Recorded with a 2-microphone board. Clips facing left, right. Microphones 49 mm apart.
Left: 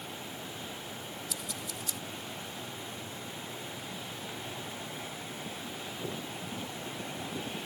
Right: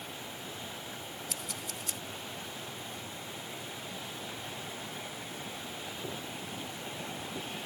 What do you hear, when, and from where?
1.3 s scissors: 50° right (ahead or behind)